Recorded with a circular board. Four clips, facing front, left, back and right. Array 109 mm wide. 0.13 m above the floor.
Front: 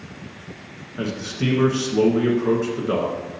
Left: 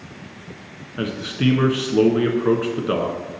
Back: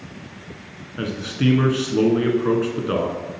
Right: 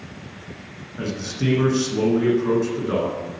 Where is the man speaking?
115° left, 1.1 m.